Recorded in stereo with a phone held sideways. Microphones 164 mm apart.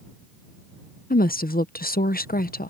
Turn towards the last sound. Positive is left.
turn(degrees=60)  # may be behind; listen again after turning